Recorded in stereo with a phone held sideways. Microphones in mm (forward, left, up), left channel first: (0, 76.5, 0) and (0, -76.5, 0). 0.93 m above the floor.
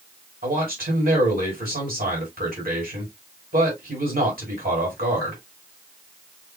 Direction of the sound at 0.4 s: 75° right (ahead or behind).